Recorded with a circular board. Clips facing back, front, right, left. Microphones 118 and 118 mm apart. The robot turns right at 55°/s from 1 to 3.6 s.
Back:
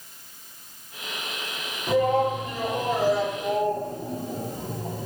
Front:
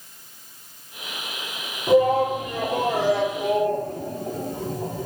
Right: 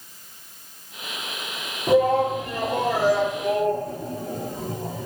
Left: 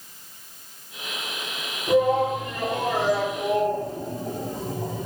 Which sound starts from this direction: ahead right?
A shout, at 1.9 s.